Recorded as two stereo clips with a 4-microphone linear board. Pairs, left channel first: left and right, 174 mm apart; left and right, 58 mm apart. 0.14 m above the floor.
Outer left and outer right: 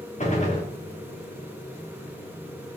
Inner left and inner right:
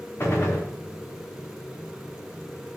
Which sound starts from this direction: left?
A gunshot, at 0.2 s.